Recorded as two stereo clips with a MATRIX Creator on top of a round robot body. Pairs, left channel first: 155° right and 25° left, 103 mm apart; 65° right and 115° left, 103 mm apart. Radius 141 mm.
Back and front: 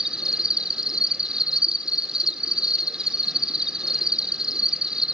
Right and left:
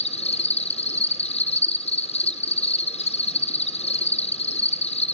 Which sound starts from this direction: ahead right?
An insect, at 0.0 s.